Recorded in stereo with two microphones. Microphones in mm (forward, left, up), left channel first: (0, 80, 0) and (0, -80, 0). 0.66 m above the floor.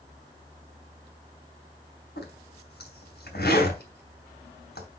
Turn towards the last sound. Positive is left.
turn(degrees=70)  # may be behind; listen again after turning